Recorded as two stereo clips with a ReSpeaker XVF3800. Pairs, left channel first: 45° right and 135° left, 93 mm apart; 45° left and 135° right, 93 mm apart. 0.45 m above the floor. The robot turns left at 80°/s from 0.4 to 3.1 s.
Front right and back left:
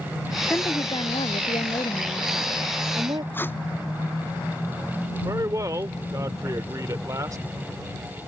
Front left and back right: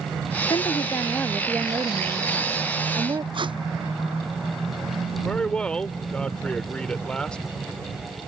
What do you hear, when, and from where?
0.5 s a woman speaking: 25° left; by 3.2 s 175° left
3.3 s tape being pulled: 110° right
5.2 s a man speaking: 120° left